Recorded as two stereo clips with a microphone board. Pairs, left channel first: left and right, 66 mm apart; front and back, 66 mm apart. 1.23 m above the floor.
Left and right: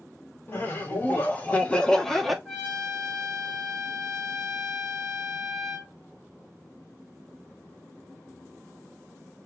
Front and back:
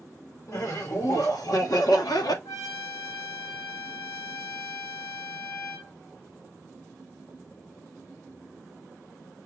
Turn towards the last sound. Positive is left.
turn(degrees=0)